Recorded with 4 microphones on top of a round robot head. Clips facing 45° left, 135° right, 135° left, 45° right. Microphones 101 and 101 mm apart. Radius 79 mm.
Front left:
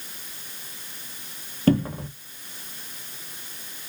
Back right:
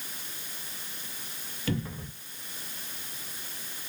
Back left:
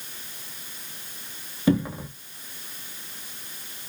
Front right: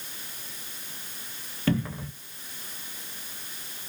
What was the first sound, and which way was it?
A cupboard door, 65° left.